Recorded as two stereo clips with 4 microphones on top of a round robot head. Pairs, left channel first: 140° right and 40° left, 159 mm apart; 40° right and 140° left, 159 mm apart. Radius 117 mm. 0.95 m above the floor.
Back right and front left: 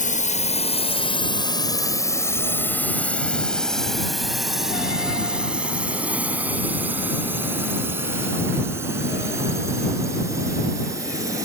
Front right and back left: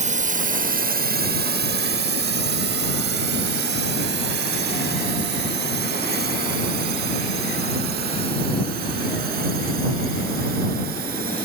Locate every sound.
0.0 s a drone: straight behind; by 11.5 s 110° left